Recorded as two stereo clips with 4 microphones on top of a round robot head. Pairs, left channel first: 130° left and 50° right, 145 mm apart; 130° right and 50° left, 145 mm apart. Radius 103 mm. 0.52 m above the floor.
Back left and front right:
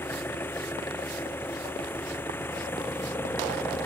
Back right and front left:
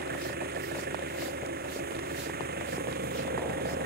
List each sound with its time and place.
0.0 s an engine running: 55° left